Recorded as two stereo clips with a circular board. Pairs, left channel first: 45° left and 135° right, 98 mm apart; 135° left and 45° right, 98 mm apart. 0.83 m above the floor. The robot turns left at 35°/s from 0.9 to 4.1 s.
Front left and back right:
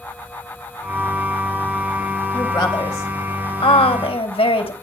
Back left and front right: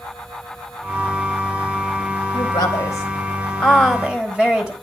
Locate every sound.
2.3 s a woman speaking: 95° left, 4 m; by 4.7 s 35° left, 4 m